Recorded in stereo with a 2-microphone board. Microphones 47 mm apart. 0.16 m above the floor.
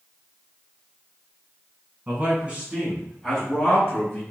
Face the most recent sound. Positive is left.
turn(degrees=35)  # may be behind; listen again after turning